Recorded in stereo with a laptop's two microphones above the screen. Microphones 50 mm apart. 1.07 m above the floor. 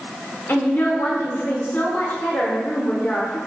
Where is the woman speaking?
40° left (ahead or behind), 0.8 m.